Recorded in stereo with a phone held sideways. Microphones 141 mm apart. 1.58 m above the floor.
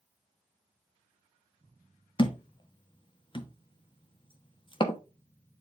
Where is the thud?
35° left (ahead or behind), 1.1 m.